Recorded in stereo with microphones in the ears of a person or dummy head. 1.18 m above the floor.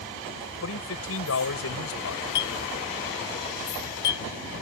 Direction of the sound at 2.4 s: 65° left (ahead or behind).